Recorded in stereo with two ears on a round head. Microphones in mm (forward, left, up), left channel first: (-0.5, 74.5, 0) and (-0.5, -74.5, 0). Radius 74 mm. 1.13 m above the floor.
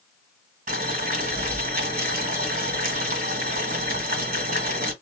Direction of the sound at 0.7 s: 50° right (ahead or behind).